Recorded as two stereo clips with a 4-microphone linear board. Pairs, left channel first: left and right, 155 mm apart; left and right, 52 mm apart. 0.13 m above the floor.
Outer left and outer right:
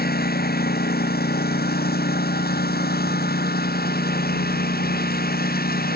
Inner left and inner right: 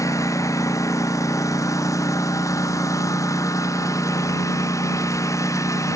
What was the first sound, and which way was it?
A lawn mower, 85° left.